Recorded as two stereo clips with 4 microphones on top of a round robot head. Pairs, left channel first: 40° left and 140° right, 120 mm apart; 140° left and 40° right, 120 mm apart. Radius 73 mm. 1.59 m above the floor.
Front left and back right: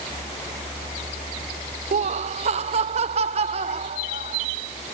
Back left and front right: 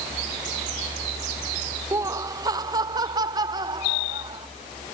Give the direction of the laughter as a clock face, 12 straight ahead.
4 o'clock.